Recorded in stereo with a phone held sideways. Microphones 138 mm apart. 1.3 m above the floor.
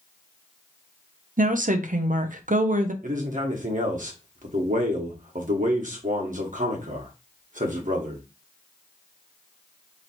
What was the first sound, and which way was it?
A woman speaking, 75° right (ahead or behind).